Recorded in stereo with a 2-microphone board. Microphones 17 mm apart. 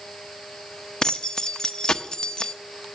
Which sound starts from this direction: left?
Keys jangling, at 1.0 s.